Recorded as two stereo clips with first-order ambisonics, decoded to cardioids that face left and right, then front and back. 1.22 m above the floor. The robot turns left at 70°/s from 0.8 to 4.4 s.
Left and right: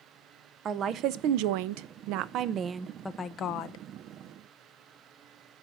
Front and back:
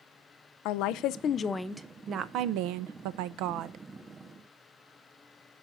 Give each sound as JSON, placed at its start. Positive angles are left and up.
{"t": 0.7, "sound": "a woman speaking", "azimuth_deg": -25, "distance_m": 0.6}